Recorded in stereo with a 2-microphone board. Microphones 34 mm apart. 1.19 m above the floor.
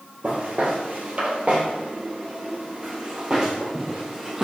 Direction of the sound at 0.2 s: 50° right (ahead or behind).